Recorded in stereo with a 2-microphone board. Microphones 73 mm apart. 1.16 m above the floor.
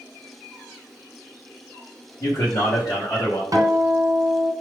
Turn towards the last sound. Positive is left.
turn(degrees=-50)  # may be behind; listen again after turning